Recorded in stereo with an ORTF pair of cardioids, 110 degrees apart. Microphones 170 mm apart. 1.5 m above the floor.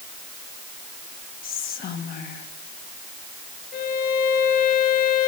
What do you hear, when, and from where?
1.4 s whispering: 55° left, 1.4 m
3.7 s a violin: 65° left, 4 m